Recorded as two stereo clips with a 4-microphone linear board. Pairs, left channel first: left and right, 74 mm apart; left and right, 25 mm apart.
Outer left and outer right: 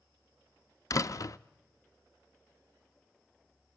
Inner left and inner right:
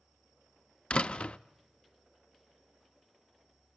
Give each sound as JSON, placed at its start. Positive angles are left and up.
{"t": 0.9, "sound": "a door slam", "side_deg": 50, "distance_m": 0.5}